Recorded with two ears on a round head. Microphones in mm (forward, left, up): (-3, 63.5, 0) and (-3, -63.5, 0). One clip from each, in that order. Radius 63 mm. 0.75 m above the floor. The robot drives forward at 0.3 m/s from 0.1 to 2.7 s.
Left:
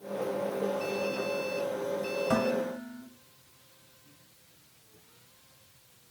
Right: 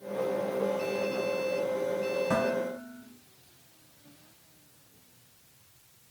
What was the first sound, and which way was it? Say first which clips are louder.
Dishes clattering: even; 50° left (ahead or behind).